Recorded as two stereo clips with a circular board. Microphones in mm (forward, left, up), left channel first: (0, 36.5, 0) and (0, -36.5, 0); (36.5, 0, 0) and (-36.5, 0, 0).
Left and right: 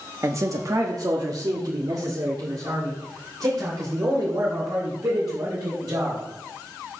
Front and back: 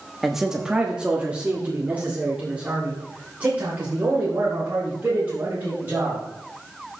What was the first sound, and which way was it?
A man speaking, 95° right.